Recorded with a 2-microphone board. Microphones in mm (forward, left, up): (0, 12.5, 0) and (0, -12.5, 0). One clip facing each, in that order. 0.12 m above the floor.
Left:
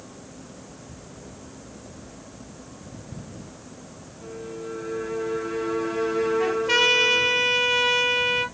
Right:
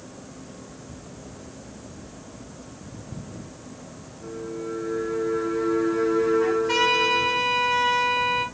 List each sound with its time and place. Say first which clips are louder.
4.2 s a violin: right 2 dB; 45° left (ahead or behind), 3.5 m
6.4 s a trumpet: left 1 dB; 40° left (ahead or behind), 3 m